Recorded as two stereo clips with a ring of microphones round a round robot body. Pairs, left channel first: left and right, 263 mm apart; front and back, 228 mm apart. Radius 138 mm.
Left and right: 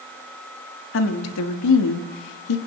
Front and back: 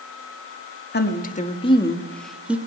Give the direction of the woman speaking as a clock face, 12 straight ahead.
10 o'clock.